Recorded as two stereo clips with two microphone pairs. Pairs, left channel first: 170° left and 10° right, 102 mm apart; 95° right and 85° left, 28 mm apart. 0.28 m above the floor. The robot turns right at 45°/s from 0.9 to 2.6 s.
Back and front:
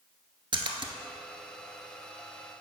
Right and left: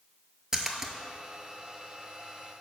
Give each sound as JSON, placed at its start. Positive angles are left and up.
{"t": 0.5, "sound": "a splash", "azimuth_deg": 20, "distance_m": 0.7}